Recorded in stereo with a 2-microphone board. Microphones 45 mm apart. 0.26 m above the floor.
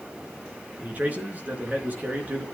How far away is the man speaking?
About 4 m.